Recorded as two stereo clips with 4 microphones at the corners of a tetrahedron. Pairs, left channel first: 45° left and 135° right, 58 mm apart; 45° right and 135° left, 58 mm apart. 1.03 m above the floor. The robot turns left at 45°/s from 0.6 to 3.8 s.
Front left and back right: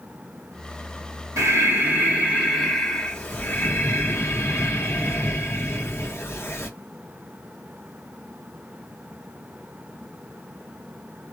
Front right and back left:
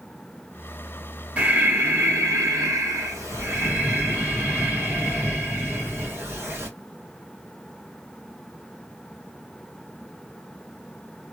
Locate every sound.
1.4 s breathing: 165° right, 1.6 m; by 6.7 s 85° left, 1.6 m